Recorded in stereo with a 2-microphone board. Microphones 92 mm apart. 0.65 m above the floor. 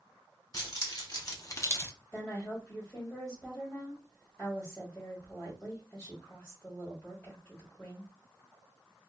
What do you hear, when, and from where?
0.5 s keys jangling: 40° left (ahead or behind), 1.0 m; by 1.9 s 30° left (ahead or behind), 0.5 m
2.1 s a woman speaking: 20° left (ahead or behind), 1.3 m